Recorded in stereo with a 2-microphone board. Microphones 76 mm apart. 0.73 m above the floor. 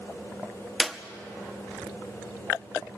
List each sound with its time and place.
0.8 s a clap: 5° right (ahead or behind), 0.9 m